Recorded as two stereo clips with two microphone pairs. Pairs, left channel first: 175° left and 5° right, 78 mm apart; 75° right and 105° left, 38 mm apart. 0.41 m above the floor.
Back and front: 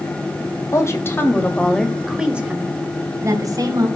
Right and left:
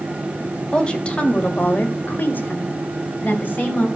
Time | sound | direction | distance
0.7 | a woman speaking | 140° right | 2.5 m